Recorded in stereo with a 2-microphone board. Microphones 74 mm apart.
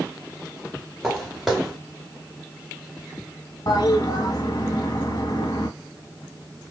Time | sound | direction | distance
1.0 | footsteps | centre (ahead or behind) | 1.4 m
3.7 | a toilet flushing | 55° left (ahead or behind) | 1.2 m